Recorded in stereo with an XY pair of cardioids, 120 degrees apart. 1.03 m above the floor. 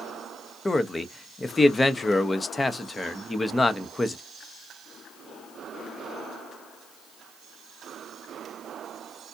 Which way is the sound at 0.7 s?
20° left.